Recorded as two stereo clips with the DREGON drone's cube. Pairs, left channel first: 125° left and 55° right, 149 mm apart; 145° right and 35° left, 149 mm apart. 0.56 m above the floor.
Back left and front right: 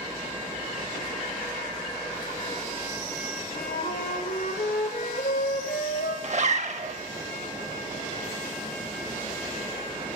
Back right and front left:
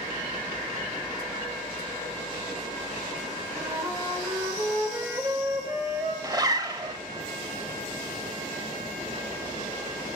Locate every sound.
3.5 s a flute: 105° left, 0.9 m
6.2 s a zipper: 25° right, 0.5 m